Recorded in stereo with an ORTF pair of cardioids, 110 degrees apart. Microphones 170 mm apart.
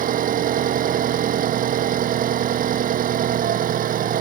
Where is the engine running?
55° right.